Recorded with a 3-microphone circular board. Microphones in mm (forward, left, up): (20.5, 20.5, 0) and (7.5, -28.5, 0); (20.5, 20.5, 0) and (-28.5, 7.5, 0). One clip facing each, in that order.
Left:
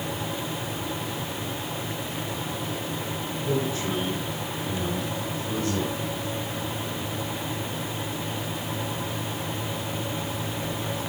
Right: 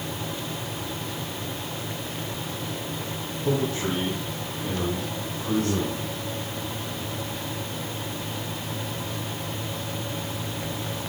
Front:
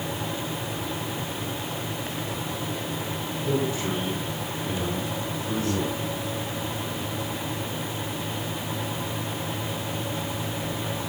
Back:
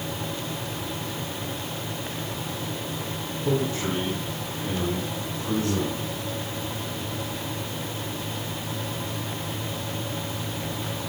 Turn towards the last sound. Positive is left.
turn(degrees=-115)